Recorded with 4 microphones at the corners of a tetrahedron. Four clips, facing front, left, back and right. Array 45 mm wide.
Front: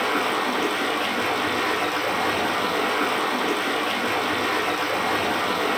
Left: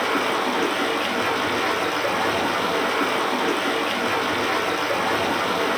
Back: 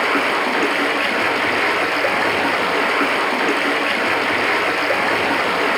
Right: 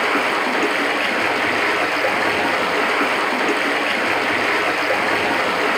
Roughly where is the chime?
No chime in this recording.